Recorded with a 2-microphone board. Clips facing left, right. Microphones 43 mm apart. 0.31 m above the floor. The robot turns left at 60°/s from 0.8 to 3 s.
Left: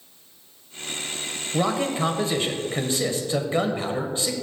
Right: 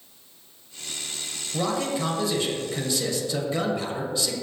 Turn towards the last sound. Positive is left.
turn(degrees=60)